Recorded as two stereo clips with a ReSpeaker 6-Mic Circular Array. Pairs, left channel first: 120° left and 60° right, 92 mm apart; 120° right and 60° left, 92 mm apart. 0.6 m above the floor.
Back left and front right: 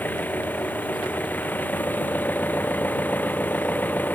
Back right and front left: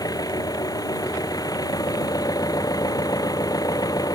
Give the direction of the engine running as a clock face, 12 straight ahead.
6 o'clock.